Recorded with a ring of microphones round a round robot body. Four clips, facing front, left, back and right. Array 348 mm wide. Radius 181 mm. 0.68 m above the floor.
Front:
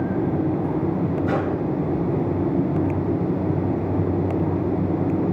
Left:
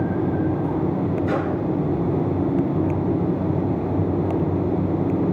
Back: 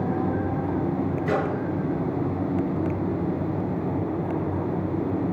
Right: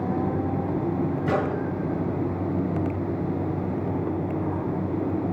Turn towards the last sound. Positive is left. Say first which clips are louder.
# left 2 dB, even
turn(degrees=-145)